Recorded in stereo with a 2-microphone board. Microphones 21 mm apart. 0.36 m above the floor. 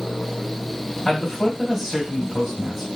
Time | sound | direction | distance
1.1 | a man speaking | 10° right (ahead or behind) | 2.5 m